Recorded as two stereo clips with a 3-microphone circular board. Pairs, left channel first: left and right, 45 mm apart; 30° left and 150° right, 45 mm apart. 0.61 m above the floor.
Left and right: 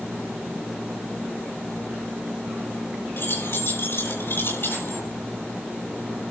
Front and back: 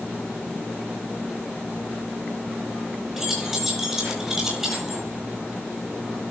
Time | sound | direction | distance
3.2 | keys jangling | 125° left | 9 m